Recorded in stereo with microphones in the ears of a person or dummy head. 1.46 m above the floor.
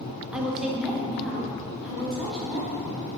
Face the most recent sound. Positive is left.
turn(degrees=0)  # may be behind; listen again after turning